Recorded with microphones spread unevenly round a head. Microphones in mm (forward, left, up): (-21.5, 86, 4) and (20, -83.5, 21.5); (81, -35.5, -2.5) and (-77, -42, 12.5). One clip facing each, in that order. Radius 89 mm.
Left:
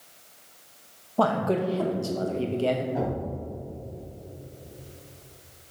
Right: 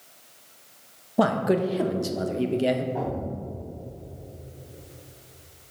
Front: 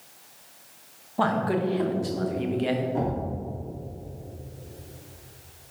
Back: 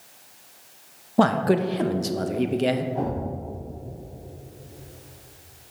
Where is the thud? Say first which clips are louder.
Even, even; 40° left, 3 m.